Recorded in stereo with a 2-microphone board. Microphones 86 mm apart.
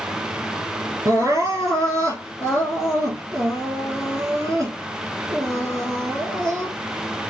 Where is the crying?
40° right (ahead or behind), 4 m.